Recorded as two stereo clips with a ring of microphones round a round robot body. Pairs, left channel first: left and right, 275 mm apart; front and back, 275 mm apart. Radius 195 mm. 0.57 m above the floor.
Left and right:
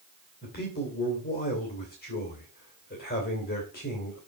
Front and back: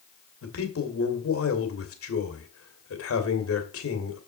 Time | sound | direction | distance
0.4 | a man speaking | 30° left | 2.5 m